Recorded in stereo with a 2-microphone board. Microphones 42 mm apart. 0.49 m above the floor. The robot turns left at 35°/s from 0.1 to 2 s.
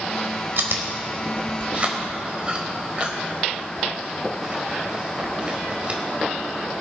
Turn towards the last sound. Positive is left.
turn(degrees=-30)  # may be behind; listen again after turning